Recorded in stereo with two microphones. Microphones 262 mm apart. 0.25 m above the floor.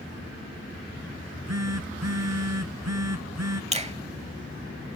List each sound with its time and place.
1.2 s a phone buzzing: 75° right (ahead or behind)
3.7 s a finger snap: 25° right (ahead or behind)